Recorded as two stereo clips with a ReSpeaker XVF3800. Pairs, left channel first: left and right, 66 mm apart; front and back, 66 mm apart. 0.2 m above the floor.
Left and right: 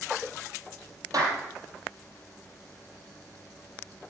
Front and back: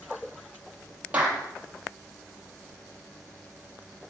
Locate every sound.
1.1 s a clap: 110° right, 5 m